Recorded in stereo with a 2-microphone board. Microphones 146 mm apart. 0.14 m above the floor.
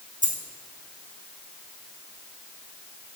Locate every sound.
0.2 s a dropped coin: 65° right (ahead or behind), 1.4 m